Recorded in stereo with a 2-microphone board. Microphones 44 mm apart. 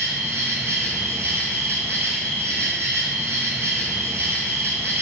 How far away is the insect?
About 0.9 m.